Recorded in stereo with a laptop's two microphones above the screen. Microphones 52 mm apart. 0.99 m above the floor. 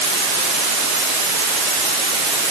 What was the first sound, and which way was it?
Only background noise.